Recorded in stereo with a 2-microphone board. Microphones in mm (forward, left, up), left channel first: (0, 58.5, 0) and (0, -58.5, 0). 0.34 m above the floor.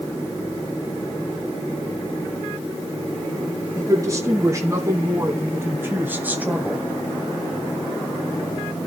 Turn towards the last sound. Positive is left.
turn(degrees=-5)  # may be behind; listen again after turning